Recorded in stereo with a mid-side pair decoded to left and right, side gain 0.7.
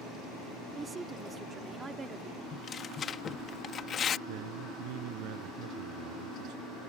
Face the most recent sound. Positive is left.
turn(degrees=-65)